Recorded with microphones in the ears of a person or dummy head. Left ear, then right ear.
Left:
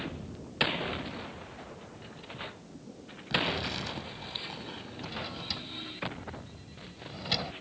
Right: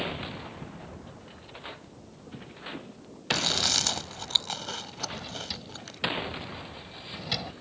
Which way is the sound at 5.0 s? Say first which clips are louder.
Left 1 dB; centre (ahead or behind).